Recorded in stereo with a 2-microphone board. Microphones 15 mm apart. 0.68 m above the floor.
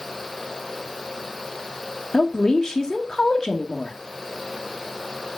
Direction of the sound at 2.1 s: 50° left (ahead or behind).